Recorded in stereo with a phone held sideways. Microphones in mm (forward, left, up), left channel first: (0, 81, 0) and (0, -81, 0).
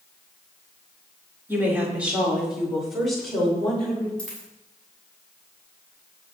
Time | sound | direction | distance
1.5 | a woman speaking | 15° right (ahead or behind) | 4 m
4.2 | a dropped coin | 5° left (ahead or behind) | 7 m